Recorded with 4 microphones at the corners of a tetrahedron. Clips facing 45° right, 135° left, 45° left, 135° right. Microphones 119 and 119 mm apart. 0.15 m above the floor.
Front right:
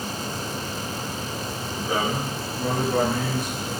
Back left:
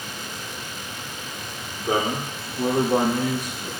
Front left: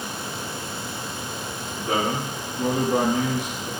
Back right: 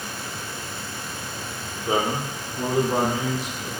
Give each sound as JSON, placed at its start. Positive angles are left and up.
{"t": 1.9, "sound": "a man speaking", "azimuth_deg": 165, "distance_m": 4.5}